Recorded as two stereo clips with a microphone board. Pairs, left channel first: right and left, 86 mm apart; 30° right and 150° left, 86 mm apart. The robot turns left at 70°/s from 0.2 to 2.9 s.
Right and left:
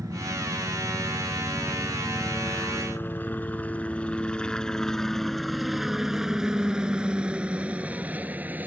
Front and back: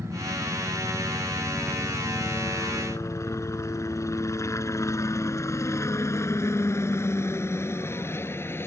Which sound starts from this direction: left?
A helicopter, at 0.0 s.